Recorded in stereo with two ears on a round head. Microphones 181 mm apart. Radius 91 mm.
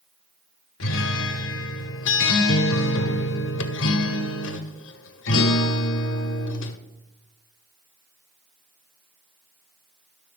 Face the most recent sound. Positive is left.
turn(degrees=70)  # may be behind; listen again after turning